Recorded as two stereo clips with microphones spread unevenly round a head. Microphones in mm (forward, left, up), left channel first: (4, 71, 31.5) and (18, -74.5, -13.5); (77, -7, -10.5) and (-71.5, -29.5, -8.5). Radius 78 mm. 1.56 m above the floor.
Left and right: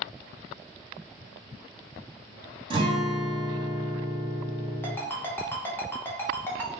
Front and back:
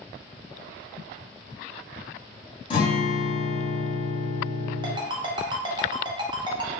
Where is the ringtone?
145° left, 0.8 m.